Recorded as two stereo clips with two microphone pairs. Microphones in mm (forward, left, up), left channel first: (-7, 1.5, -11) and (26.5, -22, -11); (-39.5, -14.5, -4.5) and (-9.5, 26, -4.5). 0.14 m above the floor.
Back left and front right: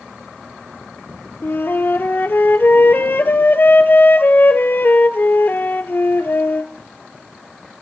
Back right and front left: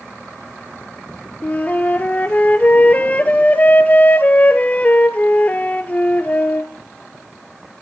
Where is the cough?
No cough in this recording.